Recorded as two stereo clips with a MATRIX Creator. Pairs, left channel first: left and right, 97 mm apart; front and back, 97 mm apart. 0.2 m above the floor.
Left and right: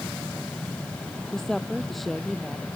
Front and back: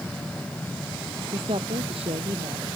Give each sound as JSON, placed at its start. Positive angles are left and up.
{"t": 1.3, "sound": "a woman speaking", "azimuth_deg": 175}